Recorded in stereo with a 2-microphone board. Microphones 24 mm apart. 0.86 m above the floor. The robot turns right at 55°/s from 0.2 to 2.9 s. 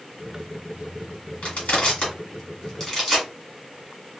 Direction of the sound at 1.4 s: 75° left (ahead or behind).